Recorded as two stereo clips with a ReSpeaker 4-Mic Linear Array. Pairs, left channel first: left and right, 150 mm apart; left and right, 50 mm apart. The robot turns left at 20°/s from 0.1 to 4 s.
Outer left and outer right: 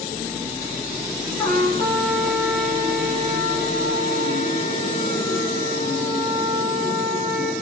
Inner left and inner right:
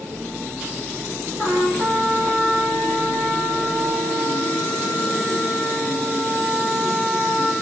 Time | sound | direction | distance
1.4 | a trumpet | 165° left | 6 m